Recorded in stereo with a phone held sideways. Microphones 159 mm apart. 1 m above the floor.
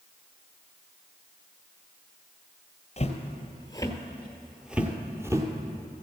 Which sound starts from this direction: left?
Footsteps, at 3.0 s.